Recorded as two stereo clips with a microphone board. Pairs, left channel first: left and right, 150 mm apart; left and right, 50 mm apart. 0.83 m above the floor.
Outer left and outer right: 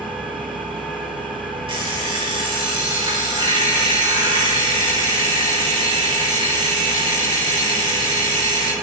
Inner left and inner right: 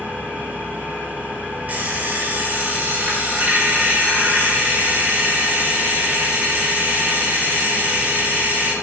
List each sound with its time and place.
0.0 s an engine running: centre (ahead or behind), 7.5 m
1.7 s an alarm clock: 35° right (ahead or behind), 3.5 m